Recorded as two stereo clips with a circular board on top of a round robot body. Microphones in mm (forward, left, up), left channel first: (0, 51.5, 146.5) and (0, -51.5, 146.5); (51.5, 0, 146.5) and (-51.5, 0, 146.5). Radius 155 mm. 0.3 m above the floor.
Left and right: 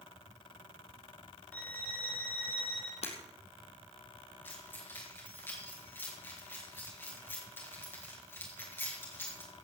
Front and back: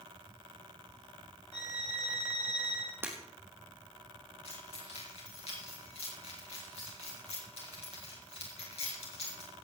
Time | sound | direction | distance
1.5 | a violin | 165° left | 3 m
3.0 | breaking glass | 110° left | 3 m
4.5 | keys jangling | 20° left | 5.5 m